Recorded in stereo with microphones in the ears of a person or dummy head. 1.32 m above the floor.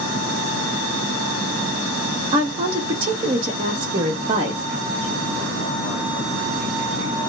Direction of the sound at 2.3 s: 30° right (ahead or behind).